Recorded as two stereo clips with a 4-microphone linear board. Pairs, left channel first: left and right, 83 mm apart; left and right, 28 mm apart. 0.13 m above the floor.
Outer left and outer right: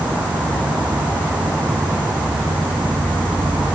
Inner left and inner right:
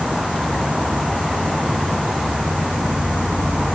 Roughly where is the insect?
Right.